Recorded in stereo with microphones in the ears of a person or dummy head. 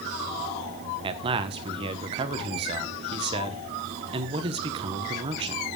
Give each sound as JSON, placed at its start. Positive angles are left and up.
{"t": 1.0, "sound": "a man speaking", "side_deg": -30, "distance_m": 1.2}